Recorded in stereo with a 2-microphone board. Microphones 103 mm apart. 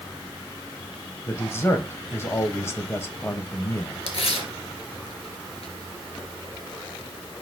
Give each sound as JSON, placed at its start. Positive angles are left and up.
{"t": 1.3, "sound": "a man speaking", "side_deg": 25, "distance_m": 1.4}
{"t": 4.1, "sound": "tearing paper", "side_deg": 70, "distance_m": 2.0}